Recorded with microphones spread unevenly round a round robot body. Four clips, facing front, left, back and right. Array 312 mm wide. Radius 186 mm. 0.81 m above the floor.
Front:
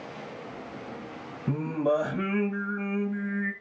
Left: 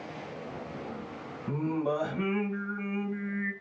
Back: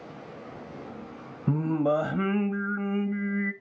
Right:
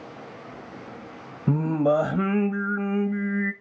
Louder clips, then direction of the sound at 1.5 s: Right 8 dB, back 1 dB; 100° right.